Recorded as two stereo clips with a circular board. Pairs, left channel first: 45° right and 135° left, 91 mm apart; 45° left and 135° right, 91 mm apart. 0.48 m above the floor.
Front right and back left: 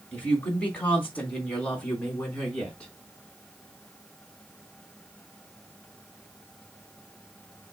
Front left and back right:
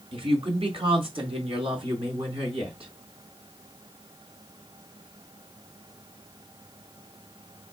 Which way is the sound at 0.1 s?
120° right.